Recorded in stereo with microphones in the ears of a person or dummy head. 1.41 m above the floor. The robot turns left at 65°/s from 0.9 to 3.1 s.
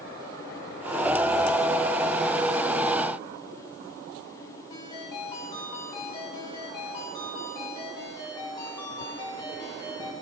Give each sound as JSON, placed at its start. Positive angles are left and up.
{"t": 4.7, "sound": "a ringtone", "side_deg": 15, "distance_m": 8.0}